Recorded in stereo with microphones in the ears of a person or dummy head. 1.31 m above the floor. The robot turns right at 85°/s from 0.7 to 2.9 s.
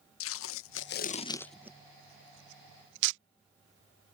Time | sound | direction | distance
0.2 | tape being pulled | 70° left (ahead or behind) | ?